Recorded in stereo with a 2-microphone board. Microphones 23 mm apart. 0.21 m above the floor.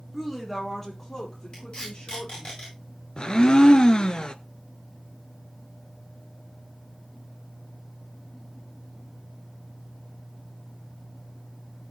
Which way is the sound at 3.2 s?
35° left (ahead or behind).